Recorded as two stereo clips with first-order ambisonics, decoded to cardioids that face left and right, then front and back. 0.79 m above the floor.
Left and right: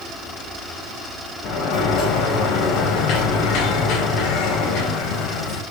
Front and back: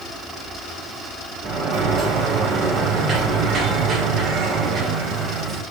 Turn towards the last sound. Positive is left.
turn(degrees=110)